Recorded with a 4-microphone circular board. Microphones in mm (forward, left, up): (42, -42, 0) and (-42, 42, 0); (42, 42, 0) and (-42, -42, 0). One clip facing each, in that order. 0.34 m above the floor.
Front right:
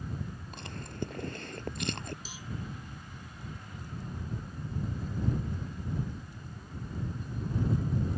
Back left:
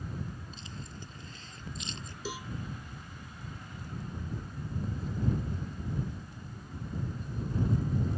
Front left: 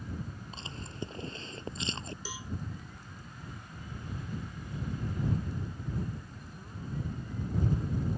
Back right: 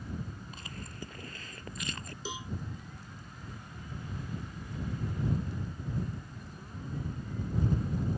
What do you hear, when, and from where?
0.5 s chewing: 20° right
2.2 s a cowbell: 155° left